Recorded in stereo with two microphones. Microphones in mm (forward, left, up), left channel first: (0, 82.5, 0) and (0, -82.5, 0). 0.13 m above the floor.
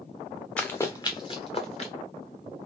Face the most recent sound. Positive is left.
turn(degrees=40)  # may be behind; listen again after turning